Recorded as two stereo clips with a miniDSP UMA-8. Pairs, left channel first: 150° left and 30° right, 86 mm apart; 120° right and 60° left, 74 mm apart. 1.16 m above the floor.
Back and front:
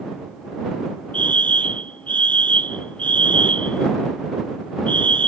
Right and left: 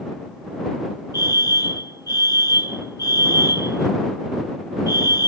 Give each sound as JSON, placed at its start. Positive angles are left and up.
{"t": 1.1, "sound": "a fire alarm", "azimuth_deg": -140}